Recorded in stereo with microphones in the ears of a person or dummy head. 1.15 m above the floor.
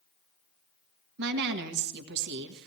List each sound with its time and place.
1.2 s a woman speaking: 60° right (ahead or behind), 1.4 m